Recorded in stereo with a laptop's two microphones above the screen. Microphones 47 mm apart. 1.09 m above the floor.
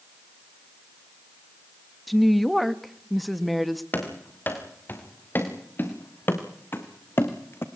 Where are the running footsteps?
40° left (ahead or behind), 6 m; by 7.7 s 55° left (ahead or behind), 2.5 m.